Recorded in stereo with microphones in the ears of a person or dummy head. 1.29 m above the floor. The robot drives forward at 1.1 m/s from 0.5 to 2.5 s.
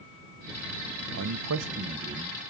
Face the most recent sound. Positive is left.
turn(degrees=-25)  # may be behind; listen again after turning